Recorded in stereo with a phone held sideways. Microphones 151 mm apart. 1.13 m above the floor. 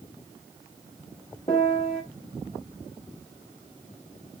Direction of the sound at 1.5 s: 45° left (ahead or behind).